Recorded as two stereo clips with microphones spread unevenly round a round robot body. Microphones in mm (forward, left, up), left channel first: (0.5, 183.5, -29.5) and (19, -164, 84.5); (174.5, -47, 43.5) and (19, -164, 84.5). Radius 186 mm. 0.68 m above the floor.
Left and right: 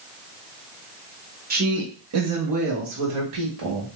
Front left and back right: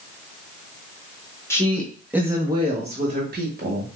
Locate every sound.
1.5 s a woman speaking: 10° right, 1.1 m; by 3.9 s 115° right, 1.4 m